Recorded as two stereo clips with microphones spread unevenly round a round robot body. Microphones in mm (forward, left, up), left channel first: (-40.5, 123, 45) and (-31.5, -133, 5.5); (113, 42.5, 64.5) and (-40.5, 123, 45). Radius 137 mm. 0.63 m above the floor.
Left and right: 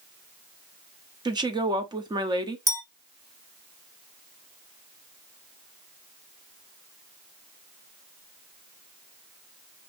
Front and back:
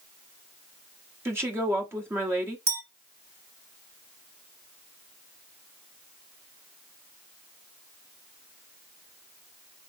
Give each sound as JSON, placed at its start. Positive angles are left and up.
{"t": 1.2, "sound": "a woman speaking", "azimuth_deg": -145, "distance_m": 1.0}
{"t": 2.7, "sound": "a clink", "azimuth_deg": -165, "distance_m": 2.5}